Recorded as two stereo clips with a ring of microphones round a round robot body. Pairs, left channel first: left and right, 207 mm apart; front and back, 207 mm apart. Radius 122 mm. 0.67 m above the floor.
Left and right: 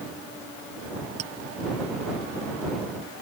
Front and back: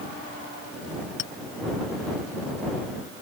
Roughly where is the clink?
Ahead right.